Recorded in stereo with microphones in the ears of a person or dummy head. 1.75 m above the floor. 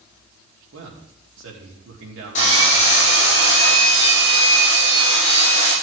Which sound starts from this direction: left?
Sawing, at 2.4 s.